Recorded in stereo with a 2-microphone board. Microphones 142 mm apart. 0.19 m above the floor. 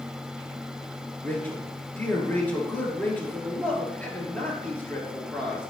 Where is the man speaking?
15° left (ahead or behind), 2.5 m.